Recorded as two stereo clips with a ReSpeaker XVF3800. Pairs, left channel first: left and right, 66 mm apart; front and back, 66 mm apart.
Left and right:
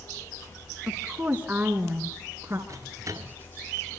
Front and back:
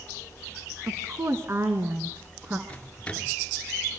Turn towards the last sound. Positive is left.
turn(degrees=-70)